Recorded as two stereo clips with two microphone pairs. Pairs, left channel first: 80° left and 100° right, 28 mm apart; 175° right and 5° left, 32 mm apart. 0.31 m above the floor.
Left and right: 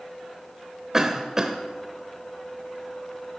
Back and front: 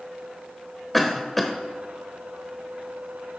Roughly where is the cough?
Right.